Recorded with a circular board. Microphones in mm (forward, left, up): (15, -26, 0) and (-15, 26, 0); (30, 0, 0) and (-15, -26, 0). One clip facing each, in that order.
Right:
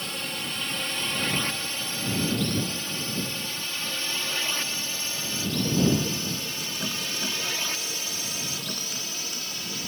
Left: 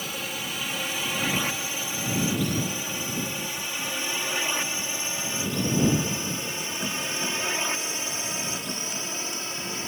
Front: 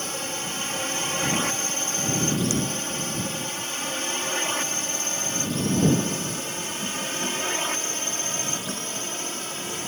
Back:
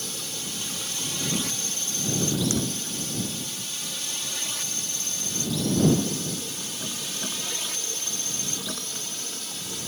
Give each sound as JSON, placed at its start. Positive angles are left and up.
{"t": 0.0, "sound": "a drone", "azimuth_deg": 40}